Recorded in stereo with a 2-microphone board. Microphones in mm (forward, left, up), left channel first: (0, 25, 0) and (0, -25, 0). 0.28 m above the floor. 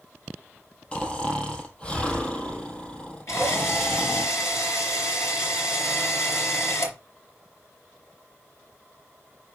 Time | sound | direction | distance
0.9 | snoring | 20° left (ahead or behind) | 1.9 m
3.3 | a drill | 65° left (ahead or behind) | 4.5 m